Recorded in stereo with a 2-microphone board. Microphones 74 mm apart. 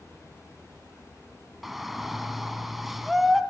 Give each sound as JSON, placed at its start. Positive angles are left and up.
{"t": 1.6, "sound": "a shout", "side_deg": -5, "distance_m": 2.0}